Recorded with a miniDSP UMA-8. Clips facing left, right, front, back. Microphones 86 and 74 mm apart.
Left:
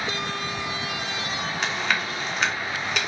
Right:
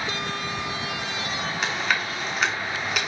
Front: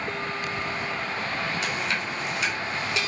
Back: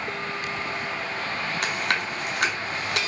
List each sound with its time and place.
1.6 s chewing: 175° right, 2 m